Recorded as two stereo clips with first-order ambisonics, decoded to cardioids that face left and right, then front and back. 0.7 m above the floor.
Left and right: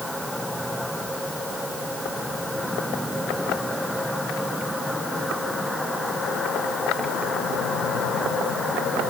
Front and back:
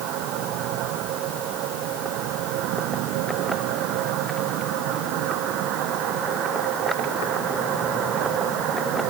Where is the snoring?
I don't hear snoring.